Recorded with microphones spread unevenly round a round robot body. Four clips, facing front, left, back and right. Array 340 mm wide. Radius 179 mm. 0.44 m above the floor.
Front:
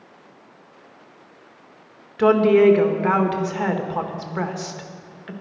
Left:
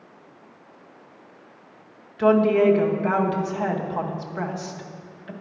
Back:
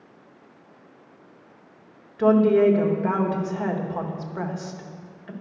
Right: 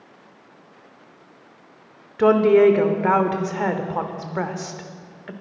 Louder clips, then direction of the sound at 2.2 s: Right 3 dB, front 3 dB; 65° right.